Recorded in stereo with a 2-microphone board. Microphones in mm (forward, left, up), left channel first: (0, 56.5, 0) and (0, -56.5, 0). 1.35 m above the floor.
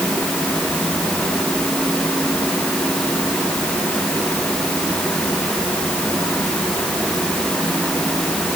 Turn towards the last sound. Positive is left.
No sound to turn to.